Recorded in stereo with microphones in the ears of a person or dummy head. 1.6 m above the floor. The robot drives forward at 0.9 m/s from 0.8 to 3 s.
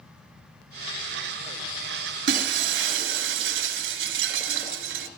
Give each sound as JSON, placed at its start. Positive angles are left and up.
{"t": 2.3, "sound": "breaking glass", "side_deg": -65, "distance_m": 4.0}